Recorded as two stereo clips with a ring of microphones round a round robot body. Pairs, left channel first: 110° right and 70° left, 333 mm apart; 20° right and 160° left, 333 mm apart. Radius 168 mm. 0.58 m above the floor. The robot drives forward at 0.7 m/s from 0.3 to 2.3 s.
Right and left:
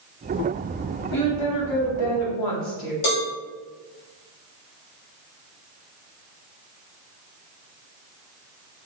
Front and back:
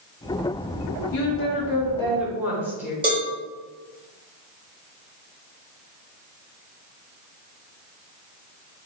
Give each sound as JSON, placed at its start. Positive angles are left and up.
{"t": 1.1, "sound": "a woman speaking", "azimuth_deg": -60, "distance_m": 1.0}
{"t": 3.0, "sound": "a cowbell", "azimuth_deg": -125, "distance_m": 1.3}